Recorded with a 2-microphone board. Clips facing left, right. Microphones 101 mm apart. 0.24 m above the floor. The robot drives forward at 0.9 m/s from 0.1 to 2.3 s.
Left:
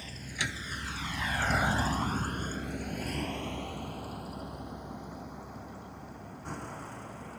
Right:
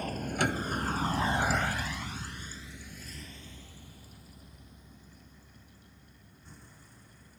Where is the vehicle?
55° right (ahead or behind); by 7.4 s 75° left (ahead or behind).